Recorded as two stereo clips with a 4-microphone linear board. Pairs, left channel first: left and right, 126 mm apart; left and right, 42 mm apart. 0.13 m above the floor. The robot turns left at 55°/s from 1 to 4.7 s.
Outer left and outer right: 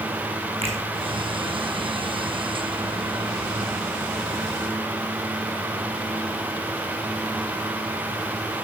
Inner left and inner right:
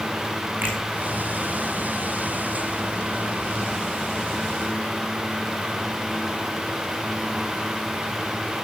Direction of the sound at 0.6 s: 50° right (ahead or behind).